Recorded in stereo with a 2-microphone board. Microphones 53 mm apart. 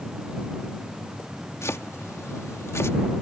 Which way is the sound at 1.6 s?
65° left (ahead or behind).